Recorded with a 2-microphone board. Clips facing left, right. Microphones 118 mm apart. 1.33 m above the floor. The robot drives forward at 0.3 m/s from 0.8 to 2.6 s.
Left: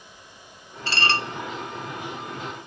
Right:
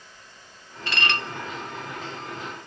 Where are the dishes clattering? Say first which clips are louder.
Left 2 dB; 35° left (ahead or behind), 0.5 m.